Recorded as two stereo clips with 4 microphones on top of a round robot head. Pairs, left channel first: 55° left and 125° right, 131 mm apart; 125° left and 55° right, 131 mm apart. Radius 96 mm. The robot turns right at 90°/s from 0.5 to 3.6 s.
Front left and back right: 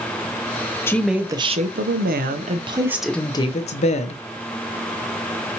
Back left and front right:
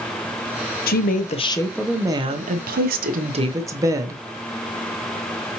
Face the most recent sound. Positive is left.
turn(degrees=15)